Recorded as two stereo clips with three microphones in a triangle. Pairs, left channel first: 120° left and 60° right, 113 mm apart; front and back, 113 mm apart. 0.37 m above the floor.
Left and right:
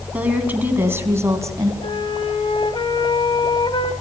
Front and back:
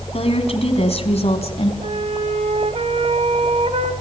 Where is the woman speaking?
15° left, 3.5 m; by 1.7 s straight ahead, 3 m.